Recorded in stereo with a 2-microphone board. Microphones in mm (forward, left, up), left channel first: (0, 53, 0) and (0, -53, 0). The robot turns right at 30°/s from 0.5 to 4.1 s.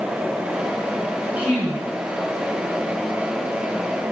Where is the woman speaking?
15° right (ahead or behind), 7 m; by 1.9 s centre (ahead or behind), 7 m.